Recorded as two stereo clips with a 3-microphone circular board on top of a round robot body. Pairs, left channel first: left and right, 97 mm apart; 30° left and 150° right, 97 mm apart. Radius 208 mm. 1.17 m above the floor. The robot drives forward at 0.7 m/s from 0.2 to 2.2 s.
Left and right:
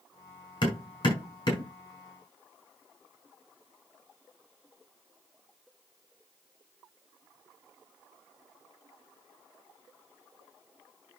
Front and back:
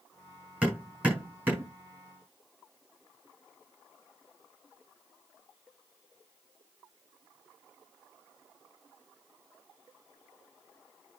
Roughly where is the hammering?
Behind left.